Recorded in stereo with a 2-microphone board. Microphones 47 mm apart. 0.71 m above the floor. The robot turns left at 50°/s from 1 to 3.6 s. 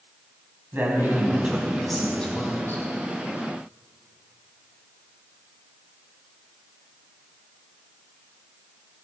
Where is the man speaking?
140° right, 4.5 m; by 2.8 s 130° left, 4.5 m.